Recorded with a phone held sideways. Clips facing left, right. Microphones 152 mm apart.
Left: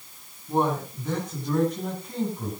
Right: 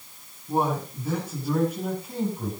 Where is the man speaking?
10° right (ahead or behind), 9.5 m; by 2.5 s 5° right (ahead or behind), 8.5 m.